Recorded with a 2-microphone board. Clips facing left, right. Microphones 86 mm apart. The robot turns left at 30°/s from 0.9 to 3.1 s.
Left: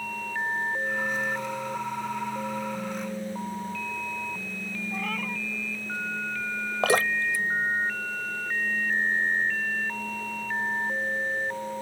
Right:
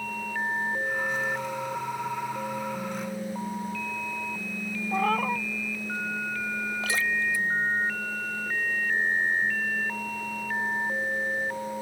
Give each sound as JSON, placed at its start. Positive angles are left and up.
{"t": 4.9, "sound": "a cat meowing", "side_deg": -40}
{"t": 6.8, "sound": "dripping", "side_deg": 60}